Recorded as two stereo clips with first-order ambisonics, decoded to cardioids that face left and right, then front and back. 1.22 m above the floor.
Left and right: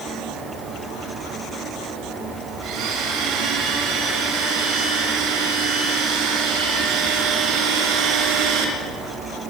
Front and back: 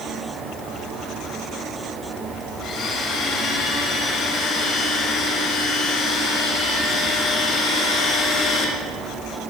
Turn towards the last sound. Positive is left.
turn(degrees=-65)